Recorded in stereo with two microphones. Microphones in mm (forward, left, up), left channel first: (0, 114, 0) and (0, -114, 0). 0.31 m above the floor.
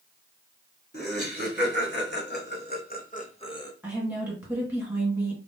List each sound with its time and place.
0.9 s laughter: 50° left (ahead or behind), 2.5 m; by 3.7 s 15° left (ahead or behind), 1.0 m
3.8 s a woman speaking: 5° right (ahead or behind), 3 m